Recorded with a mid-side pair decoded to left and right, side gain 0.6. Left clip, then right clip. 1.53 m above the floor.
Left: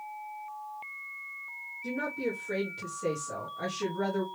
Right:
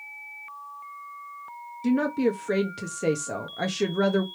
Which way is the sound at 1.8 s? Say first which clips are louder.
Right 9 dB; 55° right.